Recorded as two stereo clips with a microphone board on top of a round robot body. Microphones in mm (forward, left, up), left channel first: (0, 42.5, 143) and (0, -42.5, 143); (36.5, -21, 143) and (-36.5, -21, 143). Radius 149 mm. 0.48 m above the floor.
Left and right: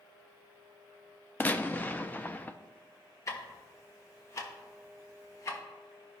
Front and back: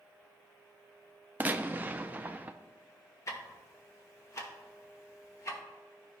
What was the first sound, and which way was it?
A gunshot, 135° left.